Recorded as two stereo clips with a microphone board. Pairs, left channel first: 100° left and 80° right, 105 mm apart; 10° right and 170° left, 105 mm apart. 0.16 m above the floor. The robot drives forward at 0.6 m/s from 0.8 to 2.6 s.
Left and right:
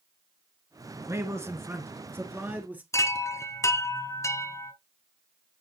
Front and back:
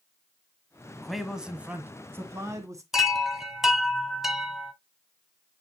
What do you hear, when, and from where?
0.9 s a man speaking: 95° right, 1.6 m; by 2.8 s 145° right, 1.9 m
2.9 s a chime: 85° left, 1.4 m